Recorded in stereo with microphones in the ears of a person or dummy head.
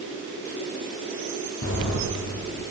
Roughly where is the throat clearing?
No throat clearing in this recording.